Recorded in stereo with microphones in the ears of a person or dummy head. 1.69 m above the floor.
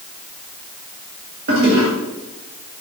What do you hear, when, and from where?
1.5 s a toilet flushing: 50° right (ahead or behind), 2 m